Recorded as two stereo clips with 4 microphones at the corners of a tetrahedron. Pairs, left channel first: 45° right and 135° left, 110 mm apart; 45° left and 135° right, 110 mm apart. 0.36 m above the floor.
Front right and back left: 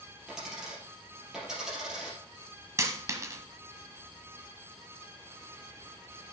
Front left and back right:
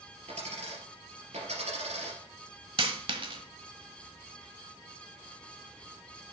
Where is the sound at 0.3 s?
140° right, 4 m.